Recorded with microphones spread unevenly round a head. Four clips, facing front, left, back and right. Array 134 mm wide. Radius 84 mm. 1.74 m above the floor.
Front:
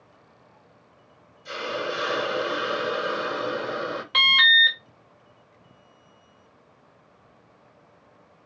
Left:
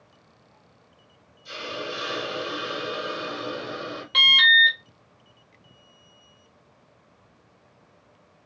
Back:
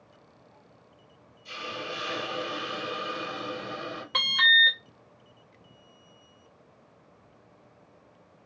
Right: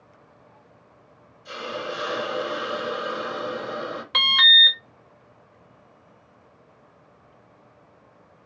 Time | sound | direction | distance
1.4 | a hiss | 35° right | 0.7 m
4.1 | an alarm | 155° right | 0.6 m